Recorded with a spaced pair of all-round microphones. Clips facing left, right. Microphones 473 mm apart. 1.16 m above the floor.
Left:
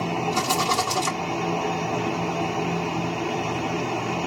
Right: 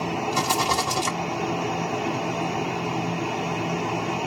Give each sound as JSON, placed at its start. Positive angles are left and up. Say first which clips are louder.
{"t": 0.3, "sound": "a rattle", "louder": "even", "side_deg": -10, "distance_m": 3.0}